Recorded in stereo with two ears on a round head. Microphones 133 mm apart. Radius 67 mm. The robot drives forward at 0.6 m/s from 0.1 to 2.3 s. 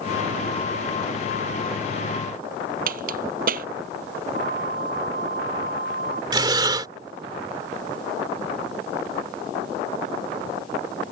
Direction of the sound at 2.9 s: 65° right (ahead or behind).